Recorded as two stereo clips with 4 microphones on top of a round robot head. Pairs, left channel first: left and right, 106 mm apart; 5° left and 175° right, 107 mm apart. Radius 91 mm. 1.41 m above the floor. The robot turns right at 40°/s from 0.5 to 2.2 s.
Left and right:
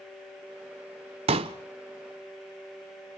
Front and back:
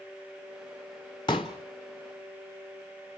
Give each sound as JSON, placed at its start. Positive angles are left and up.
{"t": 1.3, "sound": "a pop", "azimuth_deg": -60, "distance_m": 0.8}